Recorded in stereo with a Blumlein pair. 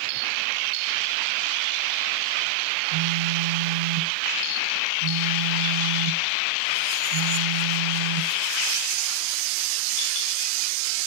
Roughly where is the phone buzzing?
Ahead right.